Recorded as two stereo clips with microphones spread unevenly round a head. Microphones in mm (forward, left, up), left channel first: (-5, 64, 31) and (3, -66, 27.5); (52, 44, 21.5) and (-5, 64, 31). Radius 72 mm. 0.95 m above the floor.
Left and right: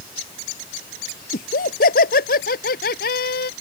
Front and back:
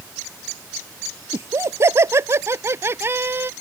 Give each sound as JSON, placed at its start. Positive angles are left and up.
{"t": 1.3, "sound": "laughter", "azimuth_deg": 120}